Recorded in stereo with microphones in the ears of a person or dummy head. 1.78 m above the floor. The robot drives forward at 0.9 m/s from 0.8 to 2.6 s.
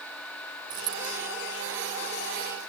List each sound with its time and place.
0.7 s a dropped coin: 30° right (ahead or behind)